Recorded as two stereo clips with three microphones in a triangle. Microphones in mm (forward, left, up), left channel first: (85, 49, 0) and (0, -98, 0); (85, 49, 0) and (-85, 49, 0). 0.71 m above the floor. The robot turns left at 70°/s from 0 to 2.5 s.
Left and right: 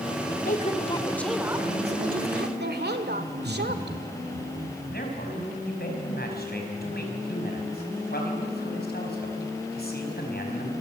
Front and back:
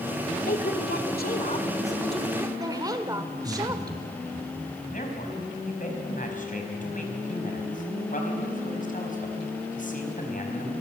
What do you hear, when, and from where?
0.5 s a woman speaking: 30° left, 1.9 m; by 4.0 s 115° right, 1.9 m
3.3 s laughter: 125° right, 5.5 m
4.9 s a man speaking: 40° left, 4.5 m